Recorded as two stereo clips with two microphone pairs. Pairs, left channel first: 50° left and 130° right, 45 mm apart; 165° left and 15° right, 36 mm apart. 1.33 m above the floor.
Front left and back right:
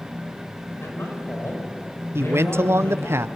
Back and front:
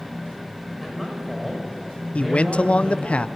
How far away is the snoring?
I don't hear snoring.